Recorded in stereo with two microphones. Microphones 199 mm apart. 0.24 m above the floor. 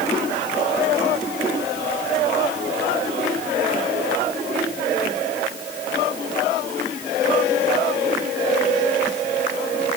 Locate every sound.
Only background noise.